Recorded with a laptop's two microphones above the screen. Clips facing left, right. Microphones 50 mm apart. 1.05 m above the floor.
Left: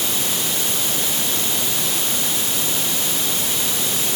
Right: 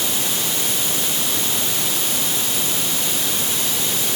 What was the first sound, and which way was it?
Only background noise.